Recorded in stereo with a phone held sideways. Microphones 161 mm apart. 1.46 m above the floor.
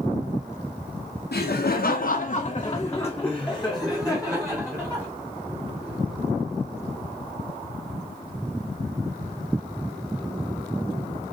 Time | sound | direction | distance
1.3 | laughter | 80° left | 0.9 m